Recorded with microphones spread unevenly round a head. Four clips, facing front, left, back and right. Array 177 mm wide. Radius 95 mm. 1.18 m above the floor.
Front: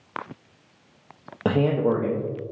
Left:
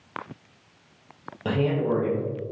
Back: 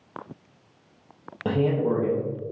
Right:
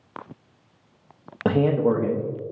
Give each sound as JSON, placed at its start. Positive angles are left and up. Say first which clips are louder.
{"t": 1.4, "sound": "a man speaking", "louder": "right 4 dB, front 2 dB", "azimuth_deg": -50, "distance_m": 0.5}